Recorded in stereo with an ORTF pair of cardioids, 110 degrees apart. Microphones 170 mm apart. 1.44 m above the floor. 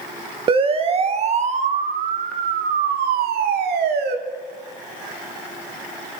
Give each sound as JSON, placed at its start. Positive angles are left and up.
{"t": 0.5, "sound": "a siren", "azimuth_deg": -30, "distance_m": 2.5}